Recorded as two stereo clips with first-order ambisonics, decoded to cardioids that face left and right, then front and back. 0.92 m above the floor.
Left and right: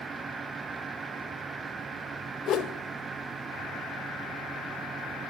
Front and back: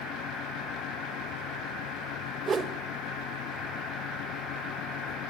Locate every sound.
2.5 s a whoosh: 120° left, 0.9 m